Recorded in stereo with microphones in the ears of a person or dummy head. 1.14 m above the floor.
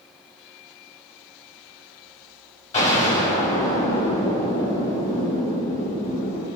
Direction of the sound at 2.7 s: 40° left (ahead or behind).